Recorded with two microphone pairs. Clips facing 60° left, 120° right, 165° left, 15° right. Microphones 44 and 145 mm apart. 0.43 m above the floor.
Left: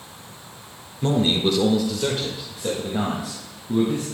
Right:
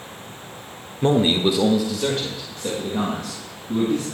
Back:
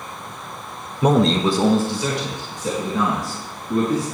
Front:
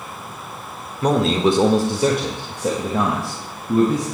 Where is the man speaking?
135° right, 0.8 m; by 4.0 s 10° right, 3 m.